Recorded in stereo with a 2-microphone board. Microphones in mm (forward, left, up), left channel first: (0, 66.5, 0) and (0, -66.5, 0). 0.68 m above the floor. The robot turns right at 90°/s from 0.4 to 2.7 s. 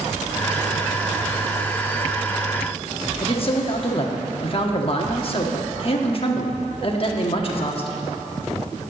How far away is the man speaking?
About 1.1 m.